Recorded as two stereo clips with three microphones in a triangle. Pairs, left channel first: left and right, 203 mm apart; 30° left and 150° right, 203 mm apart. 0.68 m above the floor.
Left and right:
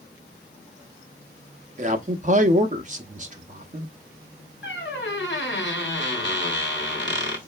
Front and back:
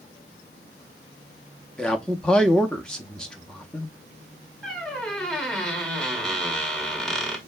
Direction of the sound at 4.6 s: 115° left.